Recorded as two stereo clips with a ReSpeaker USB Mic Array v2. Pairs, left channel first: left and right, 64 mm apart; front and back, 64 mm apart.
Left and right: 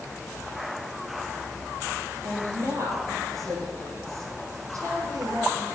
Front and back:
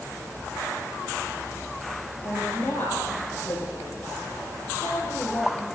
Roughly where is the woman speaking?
Ahead right.